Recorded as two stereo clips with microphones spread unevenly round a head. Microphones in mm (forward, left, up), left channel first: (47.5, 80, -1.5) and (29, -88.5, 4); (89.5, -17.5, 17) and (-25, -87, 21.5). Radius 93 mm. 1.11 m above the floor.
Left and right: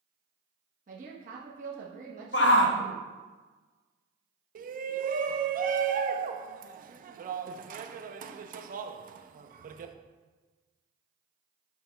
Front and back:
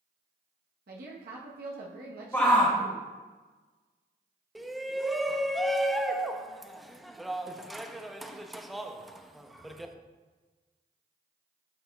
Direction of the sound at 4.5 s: 60° right.